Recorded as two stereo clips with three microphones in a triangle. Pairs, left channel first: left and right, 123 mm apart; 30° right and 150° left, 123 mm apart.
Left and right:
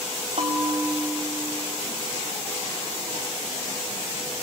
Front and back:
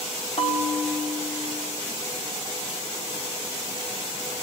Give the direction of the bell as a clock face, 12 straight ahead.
2 o'clock.